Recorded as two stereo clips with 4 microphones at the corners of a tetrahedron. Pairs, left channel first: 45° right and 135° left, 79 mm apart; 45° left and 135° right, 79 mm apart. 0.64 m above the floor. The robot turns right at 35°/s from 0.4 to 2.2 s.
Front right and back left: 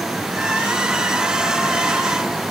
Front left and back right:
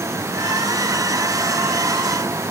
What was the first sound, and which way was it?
Only background noise.